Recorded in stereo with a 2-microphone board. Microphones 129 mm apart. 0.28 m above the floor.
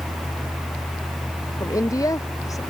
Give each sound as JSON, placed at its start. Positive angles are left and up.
{"t": 1.6, "sound": "a woman speaking", "side_deg": 25}